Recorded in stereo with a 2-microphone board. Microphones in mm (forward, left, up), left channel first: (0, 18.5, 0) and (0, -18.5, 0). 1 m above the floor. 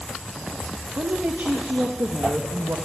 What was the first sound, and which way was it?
A woman speaking, 70° right (ahead or behind).